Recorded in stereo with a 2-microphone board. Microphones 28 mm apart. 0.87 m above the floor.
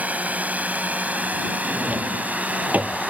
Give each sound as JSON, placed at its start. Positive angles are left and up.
{"t": 0.0, "sound": "a drone", "side_deg": -70}
{"t": 1.6, "sound": "a drawer", "side_deg": -75}